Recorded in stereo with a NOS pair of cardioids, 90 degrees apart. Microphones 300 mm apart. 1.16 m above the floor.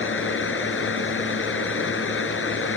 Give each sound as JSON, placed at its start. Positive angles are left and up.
{"t": 0.0, "sound": "a fan", "azimuth_deg": 45}